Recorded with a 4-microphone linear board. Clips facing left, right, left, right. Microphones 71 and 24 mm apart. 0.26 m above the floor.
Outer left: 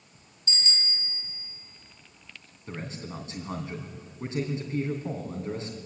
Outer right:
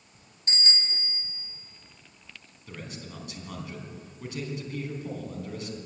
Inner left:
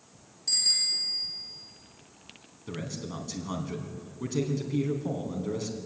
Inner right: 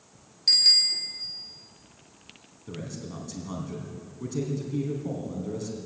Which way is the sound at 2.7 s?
30° left (ahead or behind).